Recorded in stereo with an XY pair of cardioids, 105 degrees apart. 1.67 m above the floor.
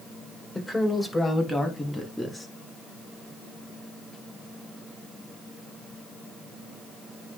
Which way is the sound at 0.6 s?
15° left.